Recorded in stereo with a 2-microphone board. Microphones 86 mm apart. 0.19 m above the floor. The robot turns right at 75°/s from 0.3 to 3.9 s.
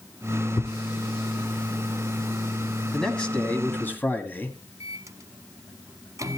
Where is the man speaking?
5° left (ahead or behind), 1.4 m; by 4.6 s 20° left (ahead or behind), 1.4 m.